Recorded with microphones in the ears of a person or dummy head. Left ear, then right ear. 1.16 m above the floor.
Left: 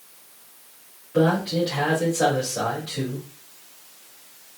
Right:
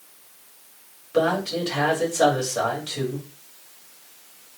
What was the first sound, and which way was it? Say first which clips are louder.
A man speaking: left 1 dB; 80° right.